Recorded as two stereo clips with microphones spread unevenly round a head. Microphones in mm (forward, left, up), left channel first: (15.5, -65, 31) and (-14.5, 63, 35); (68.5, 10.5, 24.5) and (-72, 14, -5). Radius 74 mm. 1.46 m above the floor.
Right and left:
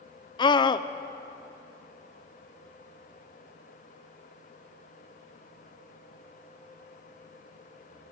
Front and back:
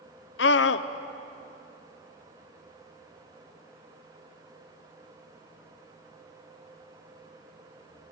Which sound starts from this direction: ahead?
A scream, at 0.4 s.